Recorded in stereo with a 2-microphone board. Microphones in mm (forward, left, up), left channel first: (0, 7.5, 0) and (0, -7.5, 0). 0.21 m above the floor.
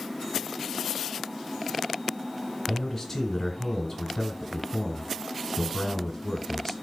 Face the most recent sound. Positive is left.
turn(degrees=15)  # may be behind; listen again after turning